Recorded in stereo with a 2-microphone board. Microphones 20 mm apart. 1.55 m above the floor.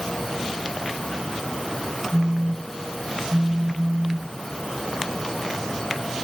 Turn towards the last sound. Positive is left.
turn(degrees=0)  # may be behind; listen again after turning